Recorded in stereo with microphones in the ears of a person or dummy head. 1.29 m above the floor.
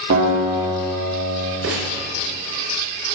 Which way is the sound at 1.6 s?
65° right (ahead or behind).